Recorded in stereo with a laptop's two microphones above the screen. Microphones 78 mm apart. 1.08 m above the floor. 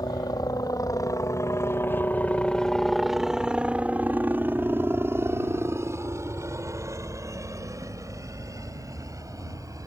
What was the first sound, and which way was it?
A helicopter, 60° left (ahead or behind).